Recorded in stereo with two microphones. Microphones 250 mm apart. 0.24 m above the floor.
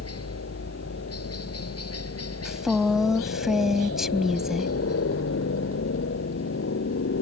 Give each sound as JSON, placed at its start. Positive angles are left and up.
{"t": 0.0, "sound": "a helicopter", "side_deg": 70}
{"t": 2.5, "sound": "a woman speaking", "side_deg": 0}